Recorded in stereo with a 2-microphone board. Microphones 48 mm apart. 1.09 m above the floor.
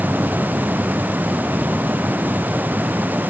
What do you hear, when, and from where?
Only background noise.